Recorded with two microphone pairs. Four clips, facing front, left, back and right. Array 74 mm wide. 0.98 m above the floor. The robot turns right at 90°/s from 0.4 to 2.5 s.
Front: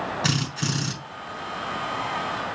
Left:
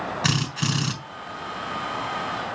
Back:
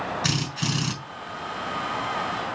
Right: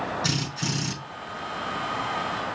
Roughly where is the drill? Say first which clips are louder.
Left 3 dB, front 1 dB; left.